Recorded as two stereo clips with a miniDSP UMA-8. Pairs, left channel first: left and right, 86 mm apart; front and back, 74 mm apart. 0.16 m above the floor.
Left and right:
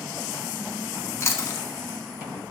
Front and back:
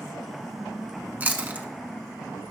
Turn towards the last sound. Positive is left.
turn(degrees=125)